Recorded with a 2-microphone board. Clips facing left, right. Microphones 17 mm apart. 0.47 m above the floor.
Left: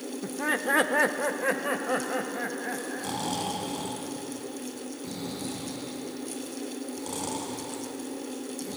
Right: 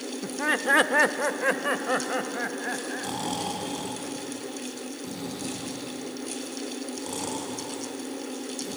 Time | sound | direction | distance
0.2 | laughter | 25° right (ahead or behind) | 0.8 m
3.0 | snoring | centre (ahead or behind) | 4 m